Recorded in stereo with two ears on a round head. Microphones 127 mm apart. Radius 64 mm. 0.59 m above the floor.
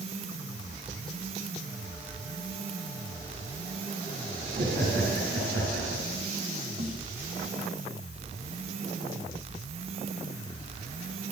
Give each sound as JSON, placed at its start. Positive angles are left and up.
{"t": 4.5, "sound": "laughter", "side_deg": -80, "distance_m": 9.5}
{"t": 6.8, "sound": "a snare drum", "side_deg": -50, "distance_m": 4.0}